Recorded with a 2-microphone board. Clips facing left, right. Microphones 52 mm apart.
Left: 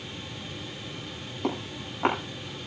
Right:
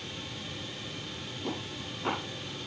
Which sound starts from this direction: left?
Footsteps, at 1.4 s.